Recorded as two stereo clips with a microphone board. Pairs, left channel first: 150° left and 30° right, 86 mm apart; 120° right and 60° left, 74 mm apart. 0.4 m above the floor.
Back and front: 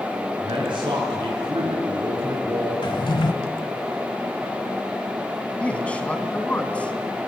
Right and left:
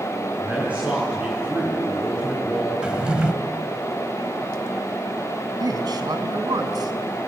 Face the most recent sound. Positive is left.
turn(degrees=75)